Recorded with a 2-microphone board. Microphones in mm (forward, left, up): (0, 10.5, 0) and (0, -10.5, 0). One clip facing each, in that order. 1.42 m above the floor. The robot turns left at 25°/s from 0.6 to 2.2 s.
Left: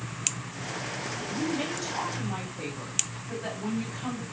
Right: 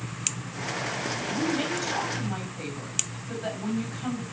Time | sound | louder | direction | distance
1.2 | a woman speaking | right 2 dB | 25° right (ahead or behind) | 5 m